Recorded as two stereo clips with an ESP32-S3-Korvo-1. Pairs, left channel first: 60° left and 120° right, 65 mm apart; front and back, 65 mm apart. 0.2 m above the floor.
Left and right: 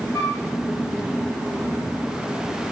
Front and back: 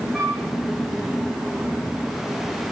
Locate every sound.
0.1 s a flute: 100° left, 3 m